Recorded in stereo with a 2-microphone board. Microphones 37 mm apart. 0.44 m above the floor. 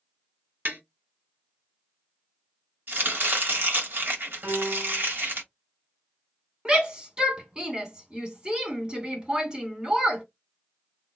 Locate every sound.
0.7 s tapping: 60° right (ahead or behind), 1.6 m
2.9 s chopping: 65° right (ahead or behind), 1.5 m
4.4 s a piano: 45° right (ahead or behind), 2.5 m
6.7 s a shout: 25° right (ahead or behind), 1.7 m